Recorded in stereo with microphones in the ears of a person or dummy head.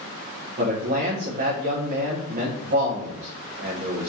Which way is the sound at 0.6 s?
50° right (ahead or behind).